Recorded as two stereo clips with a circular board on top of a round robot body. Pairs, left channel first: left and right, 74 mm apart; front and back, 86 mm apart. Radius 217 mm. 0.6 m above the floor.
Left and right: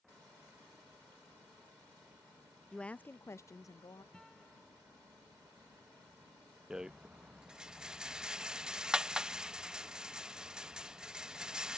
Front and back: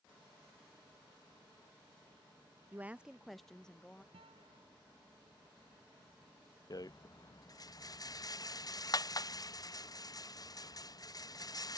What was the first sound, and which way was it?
A woman speaking, 160° left.